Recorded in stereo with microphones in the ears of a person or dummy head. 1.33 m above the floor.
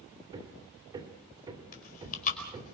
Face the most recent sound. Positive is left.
turn(degrees=40)  # may be behind; listen again after turning